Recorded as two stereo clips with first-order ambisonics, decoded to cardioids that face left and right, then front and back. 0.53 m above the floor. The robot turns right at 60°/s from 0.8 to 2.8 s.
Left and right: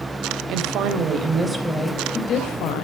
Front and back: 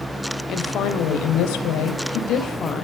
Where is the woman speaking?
50° right, 3 m; by 2.8 s 70° left, 3 m.